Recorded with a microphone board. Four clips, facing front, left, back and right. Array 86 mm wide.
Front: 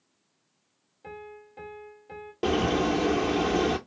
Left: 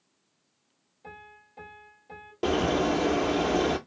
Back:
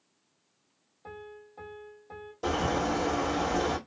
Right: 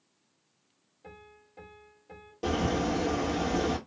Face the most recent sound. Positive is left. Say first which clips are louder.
# left 4 dB, front 4 dB
turn(degrees=35)